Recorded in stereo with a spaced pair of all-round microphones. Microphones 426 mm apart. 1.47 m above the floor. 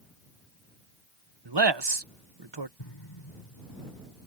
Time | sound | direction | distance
1.4 | a man speaking | 70° right (ahead or behind) | ?
2.8 | an explosion | 90° left | ?